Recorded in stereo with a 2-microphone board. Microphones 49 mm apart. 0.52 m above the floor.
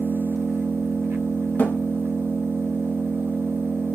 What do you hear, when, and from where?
0.0 s an engine running: 60° right (ahead or behind), 0.8 m
1.6 s a thud: 35° left (ahead or behind), 1.3 m